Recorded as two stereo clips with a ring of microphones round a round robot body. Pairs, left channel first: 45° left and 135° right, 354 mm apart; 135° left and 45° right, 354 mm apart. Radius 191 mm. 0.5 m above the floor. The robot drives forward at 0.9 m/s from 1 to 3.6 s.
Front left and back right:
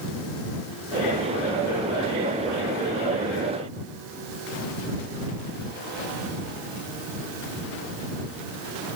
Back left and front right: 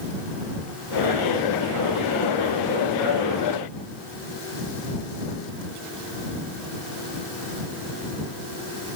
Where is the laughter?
I don't hear laughter.